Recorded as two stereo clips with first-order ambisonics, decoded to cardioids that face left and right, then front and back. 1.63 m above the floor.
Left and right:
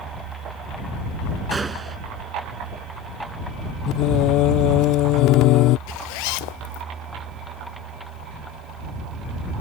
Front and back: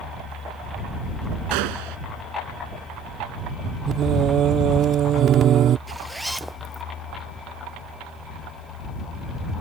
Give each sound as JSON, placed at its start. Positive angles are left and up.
{"t": 1.5, "sound": "a gunshot", "azimuth_deg": -170}
{"t": 3.9, "sound": "singing", "azimuth_deg": 125}
{"t": 5.9, "sound": "a zipper", "azimuth_deg": 95}